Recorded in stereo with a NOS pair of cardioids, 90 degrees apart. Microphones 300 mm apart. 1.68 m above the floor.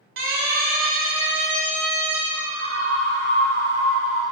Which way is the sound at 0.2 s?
45° right.